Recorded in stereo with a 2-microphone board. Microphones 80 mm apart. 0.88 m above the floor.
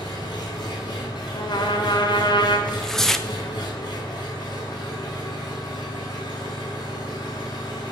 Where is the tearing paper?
5° left (ahead or behind), 0.9 m.